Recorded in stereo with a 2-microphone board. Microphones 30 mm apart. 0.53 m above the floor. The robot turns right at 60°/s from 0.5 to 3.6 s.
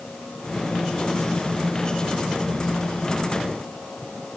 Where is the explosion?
No explosion in this recording.